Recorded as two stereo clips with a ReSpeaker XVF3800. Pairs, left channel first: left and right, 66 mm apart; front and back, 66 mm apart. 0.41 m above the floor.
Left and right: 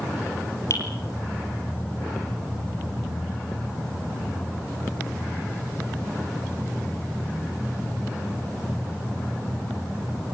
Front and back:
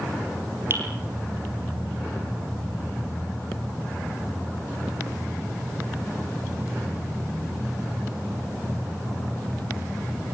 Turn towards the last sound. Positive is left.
turn(degrees=130)